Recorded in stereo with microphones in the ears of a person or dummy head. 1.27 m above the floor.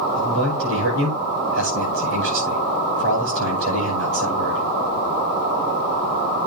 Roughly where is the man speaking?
Right.